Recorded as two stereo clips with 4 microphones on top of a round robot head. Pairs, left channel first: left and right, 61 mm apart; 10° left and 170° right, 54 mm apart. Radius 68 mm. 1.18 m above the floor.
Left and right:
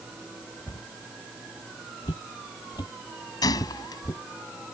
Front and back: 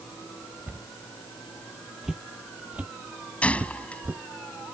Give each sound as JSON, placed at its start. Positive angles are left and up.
{"t": 0.7, "sound": "a cupboard door", "azimuth_deg": 130}
{"t": 2.0, "sound": "footsteps", "azimuth_deg": 105}
{"t": 3.4, "sound": "a gunshot", "azimuth_deg": 75}